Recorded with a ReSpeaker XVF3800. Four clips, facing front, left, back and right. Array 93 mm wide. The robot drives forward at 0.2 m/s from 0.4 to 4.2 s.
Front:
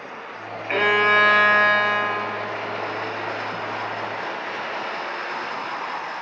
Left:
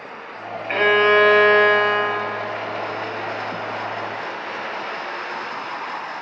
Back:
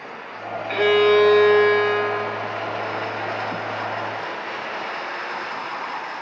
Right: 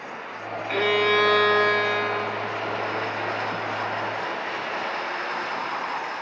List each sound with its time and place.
0.7 s a violin: 45° left, 1.0 m; by 2.9 s 85° left, 0.9 m